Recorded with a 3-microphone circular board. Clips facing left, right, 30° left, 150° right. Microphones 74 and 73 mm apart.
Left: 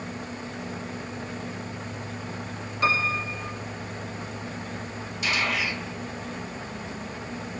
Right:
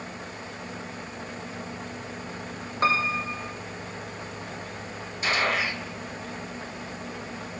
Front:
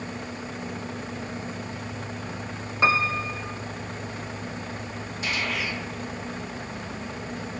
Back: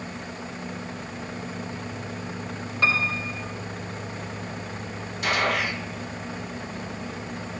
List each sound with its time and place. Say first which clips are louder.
2.8 s a piano: right 1 dB, front 3 dB; 40° right, 4 m
5.2 s a gunshot: right 2 dB, back 5 dB; 140° right, 1.9 m